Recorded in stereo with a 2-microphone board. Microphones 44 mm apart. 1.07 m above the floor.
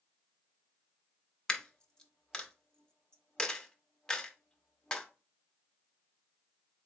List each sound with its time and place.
1.5 s a dropped coin: 20° left (ahead or behind), 0.5 m